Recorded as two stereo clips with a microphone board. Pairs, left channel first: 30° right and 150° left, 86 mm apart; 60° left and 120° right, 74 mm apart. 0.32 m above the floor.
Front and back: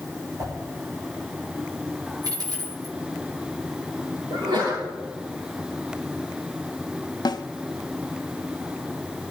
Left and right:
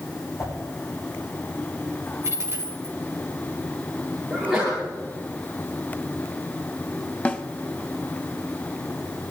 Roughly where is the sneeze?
Behind left.